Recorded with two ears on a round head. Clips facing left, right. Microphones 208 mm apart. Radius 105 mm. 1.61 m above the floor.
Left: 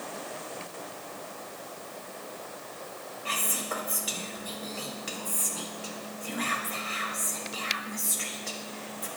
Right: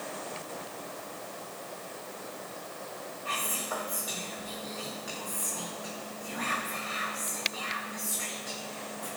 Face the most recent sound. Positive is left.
turn(degrees=40)  # may be behind; listen again after turning